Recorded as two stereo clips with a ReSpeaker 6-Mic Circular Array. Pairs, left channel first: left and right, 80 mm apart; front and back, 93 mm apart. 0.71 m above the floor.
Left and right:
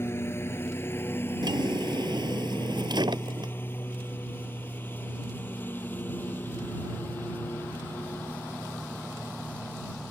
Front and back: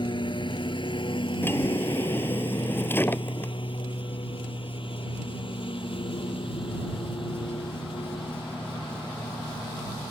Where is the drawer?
65° right.